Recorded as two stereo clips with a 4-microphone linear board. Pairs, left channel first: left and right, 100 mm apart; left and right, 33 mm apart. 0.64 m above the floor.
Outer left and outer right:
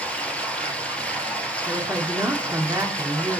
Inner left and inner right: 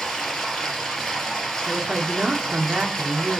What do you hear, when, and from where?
0.0 s running water: 10° left (ahead or behind), 2.5 m
1.7 s a woman speaking: 30° right (ahead or behind), 1.6 m